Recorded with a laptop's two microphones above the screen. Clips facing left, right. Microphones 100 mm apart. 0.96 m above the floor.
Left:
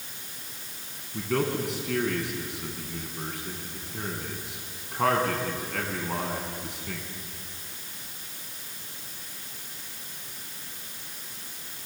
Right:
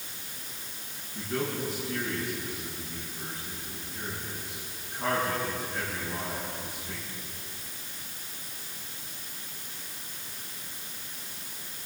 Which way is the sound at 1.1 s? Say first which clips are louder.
Left 5 dB; 80° left.